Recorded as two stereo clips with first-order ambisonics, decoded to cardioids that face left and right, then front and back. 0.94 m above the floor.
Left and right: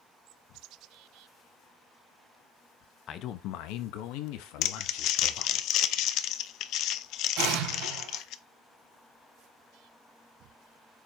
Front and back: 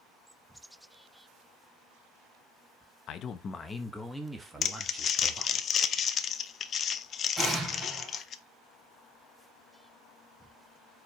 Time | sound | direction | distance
3.1 | a man speaking | 40° left | 0.8 m
4.6 | crumpling | 55° left | 0.5 m
7.4 | an explosion | 95° right | 3.5 m